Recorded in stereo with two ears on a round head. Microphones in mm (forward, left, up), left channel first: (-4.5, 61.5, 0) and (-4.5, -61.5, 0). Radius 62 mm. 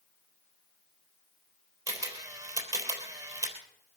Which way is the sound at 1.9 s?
25° right (ahead or behind).